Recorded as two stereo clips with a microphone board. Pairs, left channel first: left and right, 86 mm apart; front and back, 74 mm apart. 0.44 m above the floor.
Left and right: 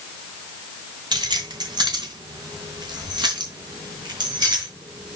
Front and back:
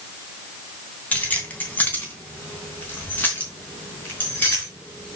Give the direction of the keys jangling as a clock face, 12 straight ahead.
2 o'clock.